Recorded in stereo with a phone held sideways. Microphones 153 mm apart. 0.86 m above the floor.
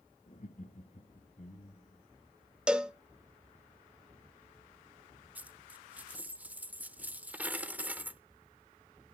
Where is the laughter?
55° left (ahead or behind), 1.4 m; by 2.0 s 45° left (ahead or behind), 1.9 m.